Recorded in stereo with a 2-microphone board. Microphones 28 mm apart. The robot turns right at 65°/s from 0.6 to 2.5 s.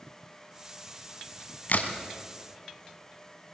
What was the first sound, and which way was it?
A crack, 65° left (ahead or behind).